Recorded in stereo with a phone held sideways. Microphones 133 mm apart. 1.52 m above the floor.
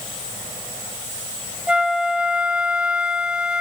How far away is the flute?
About 0.5 m.